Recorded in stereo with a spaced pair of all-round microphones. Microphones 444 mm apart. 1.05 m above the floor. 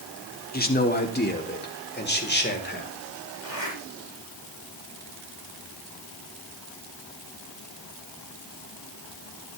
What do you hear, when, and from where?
0.5 s a man speaking: 20° left (ahead or behind), 2.5 m; by 2.9 s 25° left (ahead or behind), 4.5 m
3.4 s a zipper: 75° left (ahead or behind), 6.5 m